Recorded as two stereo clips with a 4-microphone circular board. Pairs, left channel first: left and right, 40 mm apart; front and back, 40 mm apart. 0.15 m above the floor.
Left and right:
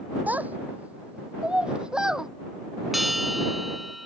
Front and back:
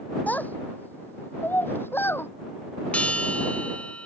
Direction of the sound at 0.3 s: 45° right.